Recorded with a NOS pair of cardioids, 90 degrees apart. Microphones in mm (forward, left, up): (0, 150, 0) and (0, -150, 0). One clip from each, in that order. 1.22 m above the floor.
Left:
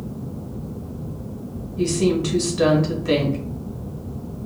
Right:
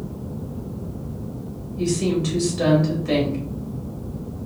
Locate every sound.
1.8 s a woman speaking: 25° left, 2.5 m